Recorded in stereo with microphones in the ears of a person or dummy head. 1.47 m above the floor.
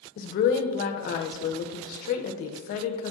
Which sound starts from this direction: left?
A woman speaking, at 0.2 s.